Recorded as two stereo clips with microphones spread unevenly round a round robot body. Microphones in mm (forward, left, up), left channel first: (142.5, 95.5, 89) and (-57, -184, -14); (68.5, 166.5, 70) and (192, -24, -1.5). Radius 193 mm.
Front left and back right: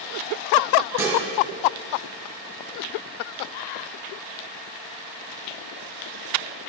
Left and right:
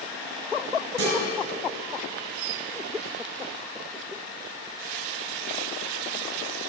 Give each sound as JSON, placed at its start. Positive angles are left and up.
{"t": 1.0, "sound": "dishes clattering", "azimuth_deg": -70, "distance_m": 4.0}